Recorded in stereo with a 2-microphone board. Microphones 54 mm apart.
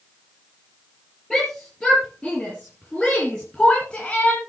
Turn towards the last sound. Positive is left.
turn(degrees=25)  # may be behind; listen again after turning